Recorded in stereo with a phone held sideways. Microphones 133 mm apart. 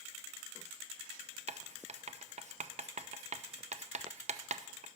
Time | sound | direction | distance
1.5 | writing | 60° right (ahead or behind) | 0.6 m